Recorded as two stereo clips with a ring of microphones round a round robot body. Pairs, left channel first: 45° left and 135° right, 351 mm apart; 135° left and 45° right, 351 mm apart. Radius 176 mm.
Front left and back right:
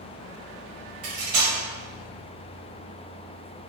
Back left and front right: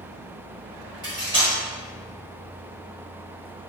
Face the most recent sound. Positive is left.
turn(degrees=-120)